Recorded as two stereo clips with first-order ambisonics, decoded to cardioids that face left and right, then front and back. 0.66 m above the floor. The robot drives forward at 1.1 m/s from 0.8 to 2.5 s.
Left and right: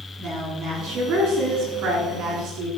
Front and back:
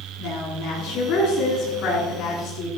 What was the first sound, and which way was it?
A woman speaking, 40° right.